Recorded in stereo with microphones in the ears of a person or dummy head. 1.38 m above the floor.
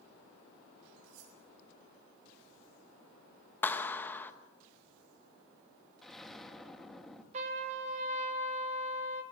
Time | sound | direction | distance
1.0 | cutlery clinking | 65° right (ahead or behind) | 8 m
3.6 | a clap | 10° left (ahead or behind) | 0.9 m
6.0 | an explosion | 5° left (ahead or behind) | 1.5 m
7.3 | a trumpet | 40° right (ahead or behind) | 2.5 m